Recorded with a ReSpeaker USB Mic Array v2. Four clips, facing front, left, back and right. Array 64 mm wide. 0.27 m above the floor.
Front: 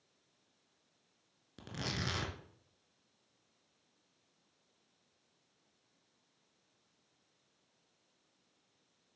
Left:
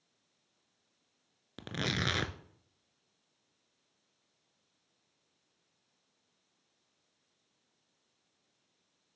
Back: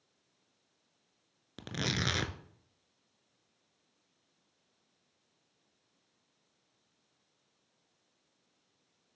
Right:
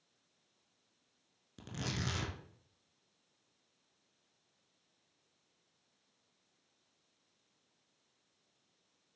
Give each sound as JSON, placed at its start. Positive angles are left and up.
{"t": 1.6, "sound": "tearing paper", "azimuth_deg": 115, "distance_m": 0.6}